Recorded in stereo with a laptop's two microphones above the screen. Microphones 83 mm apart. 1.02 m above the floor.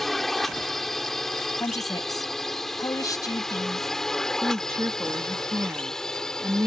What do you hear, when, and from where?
0.0 s a drone: 5° left (ahead or behind); by 6.7 s 10° left (ahead or behind)
1.6 s a woman speaking: 45° left (ahead or behind)
4.4 s a woman speaking: 35° right (ahead or behind)